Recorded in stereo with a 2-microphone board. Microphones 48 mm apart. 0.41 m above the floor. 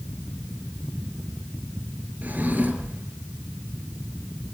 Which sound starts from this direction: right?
A drawer, at 2.2 s.